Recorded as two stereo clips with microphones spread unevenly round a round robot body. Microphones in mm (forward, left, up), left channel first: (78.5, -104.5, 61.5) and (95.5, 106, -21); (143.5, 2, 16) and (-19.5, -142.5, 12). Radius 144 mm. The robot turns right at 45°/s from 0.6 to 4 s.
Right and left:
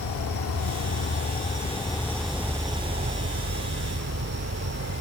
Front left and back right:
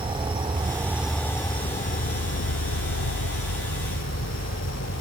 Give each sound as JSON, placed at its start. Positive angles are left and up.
{"t": 0.0, "sound": "an insect", "azimuth_deg": -70}